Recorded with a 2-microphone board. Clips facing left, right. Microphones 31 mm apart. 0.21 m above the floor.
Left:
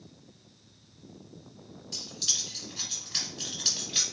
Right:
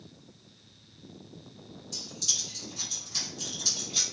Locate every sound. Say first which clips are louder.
1.9 s keys jangling: left 1 dB; 55° left (ahead or behind), 1.6 m